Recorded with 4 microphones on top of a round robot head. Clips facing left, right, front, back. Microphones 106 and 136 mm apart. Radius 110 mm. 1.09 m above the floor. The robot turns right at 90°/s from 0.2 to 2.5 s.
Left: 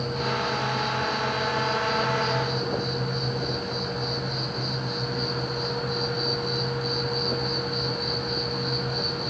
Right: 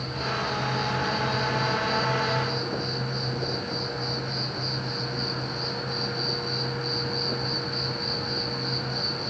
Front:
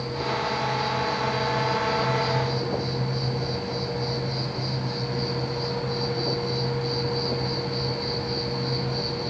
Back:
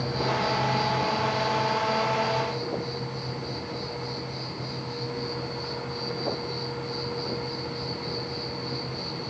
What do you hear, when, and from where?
0.0 s an insect: 160° left, 9 m; by 9.3 s 10° left, 9 m